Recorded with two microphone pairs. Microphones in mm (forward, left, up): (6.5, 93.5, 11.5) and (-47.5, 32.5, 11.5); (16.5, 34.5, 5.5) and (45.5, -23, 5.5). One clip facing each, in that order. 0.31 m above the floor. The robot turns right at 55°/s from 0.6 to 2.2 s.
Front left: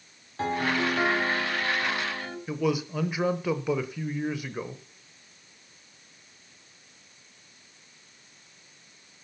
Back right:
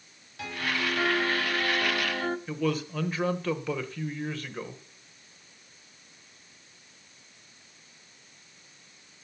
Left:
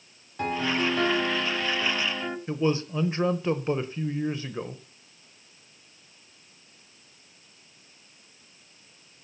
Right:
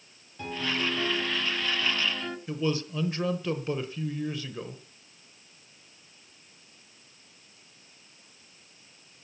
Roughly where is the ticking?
I don't hear ticking.